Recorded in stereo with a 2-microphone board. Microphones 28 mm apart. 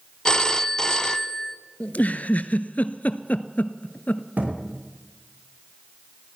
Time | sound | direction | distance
0.2 | a phone ringing | 20° left (ahead or behind) | 0.6 m
1.8 | a giggle | 70° left (ahead or behind) | 0.7 m
4.4 | a thud | 85° right | 5 m